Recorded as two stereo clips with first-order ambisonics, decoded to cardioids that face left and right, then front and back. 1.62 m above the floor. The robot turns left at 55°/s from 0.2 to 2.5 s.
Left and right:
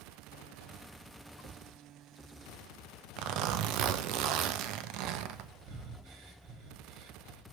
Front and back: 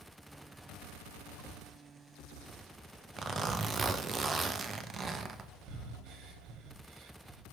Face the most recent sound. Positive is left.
turn(degrees=-135)